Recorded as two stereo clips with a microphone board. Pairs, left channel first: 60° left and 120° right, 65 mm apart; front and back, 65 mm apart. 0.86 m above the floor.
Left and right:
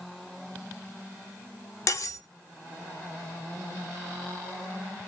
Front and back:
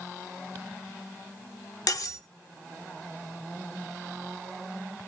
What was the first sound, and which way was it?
Cutlery clinking, 25° left.